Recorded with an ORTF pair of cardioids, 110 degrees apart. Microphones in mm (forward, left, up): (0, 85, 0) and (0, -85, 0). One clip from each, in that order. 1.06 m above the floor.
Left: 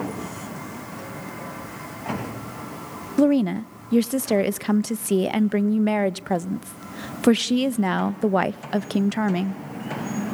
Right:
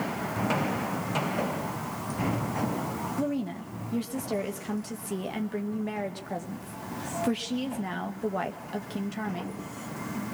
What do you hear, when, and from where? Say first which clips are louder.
3.2 s a woman speaking: left 16 dB; 60° left, 0.8 m